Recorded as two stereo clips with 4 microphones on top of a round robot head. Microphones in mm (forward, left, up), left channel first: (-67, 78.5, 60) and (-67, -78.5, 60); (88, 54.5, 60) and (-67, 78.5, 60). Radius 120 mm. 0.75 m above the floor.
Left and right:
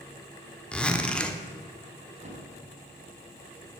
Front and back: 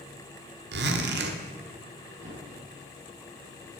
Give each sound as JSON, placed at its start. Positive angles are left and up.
{"t": 0.7, "sound": "a zipper", "azimuth_deg": 175, "distance_m": 1.3}
{"t": 2.2, "sound": "a thud", "azimuth_deg": -135, "distance_m": 3.0}